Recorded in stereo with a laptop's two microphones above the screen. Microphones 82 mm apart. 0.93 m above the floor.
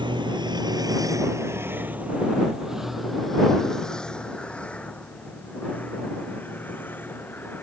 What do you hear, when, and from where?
0.0 s a vehicle: 80° right; by 7.6 s 25° left (ahead or behind)